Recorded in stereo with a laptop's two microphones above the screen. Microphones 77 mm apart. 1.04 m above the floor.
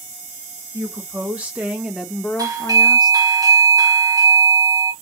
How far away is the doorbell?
About 1.4 m.